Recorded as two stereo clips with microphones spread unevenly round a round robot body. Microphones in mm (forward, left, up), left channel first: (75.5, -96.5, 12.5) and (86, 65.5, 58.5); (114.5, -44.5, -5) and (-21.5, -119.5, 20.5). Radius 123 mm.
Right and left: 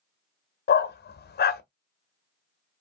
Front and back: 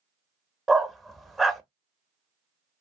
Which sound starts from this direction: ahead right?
A dog barking, at 0.7 s.